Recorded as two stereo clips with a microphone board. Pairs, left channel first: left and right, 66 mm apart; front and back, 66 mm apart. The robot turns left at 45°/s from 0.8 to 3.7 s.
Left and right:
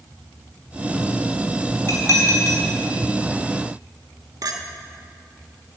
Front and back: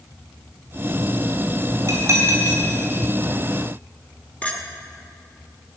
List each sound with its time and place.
1.9 s dishes clattering: 140° left, 4.5 m; by 2.6 s 110° left, 4.5 m
4.4 s a clink: 70° right, 1.4 m